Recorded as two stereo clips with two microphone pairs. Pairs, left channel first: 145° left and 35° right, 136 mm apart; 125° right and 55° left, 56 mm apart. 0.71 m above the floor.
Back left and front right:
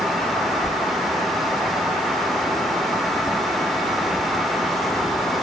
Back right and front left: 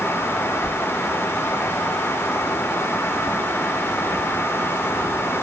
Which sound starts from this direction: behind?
Whispering, at 0.6 s.